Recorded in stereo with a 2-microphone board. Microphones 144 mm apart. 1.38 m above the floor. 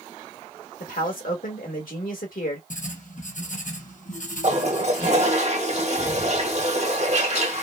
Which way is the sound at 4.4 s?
50° right (ahead or behind).